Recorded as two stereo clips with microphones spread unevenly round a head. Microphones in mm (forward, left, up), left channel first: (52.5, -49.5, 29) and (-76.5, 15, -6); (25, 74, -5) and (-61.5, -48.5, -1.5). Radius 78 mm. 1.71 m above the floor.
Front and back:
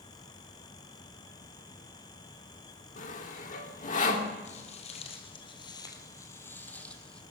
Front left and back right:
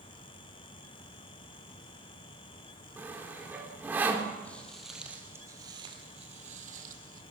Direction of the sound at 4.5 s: 25° right.